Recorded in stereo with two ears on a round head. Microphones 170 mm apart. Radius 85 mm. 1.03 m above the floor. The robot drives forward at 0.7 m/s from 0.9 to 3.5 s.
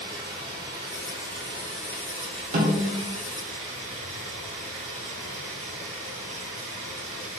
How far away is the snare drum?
About 3 m.